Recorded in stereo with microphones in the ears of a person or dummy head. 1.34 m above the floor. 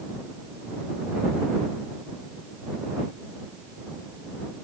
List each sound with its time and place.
Only background noise.